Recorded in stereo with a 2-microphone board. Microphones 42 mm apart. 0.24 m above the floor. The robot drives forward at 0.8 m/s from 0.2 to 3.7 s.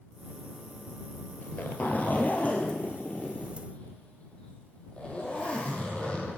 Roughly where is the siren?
I don't hear a siren.